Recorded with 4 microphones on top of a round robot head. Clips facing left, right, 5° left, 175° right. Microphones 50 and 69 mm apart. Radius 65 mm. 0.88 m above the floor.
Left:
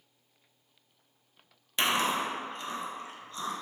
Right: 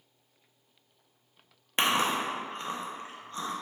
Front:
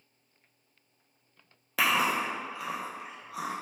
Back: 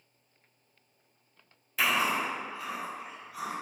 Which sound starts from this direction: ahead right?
Chewing, at 1.8 s.